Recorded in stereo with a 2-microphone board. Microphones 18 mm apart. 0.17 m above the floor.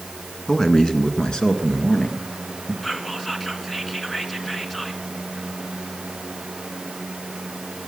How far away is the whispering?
About 1.8 m.